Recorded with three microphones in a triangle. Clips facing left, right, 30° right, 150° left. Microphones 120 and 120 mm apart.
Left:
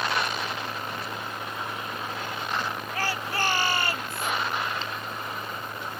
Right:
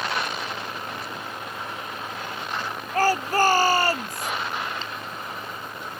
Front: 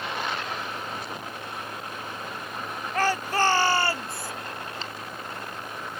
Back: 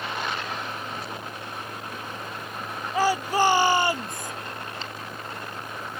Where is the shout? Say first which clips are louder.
Right 11 dB, back 3 dB; 130° right; by 4.3 s 140° right.